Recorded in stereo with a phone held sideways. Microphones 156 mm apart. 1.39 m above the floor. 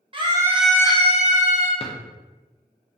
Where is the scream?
35° right (ahead or behind), 0.8 m; by 1.7 s 70° left (ahead or behind), 1.0 m.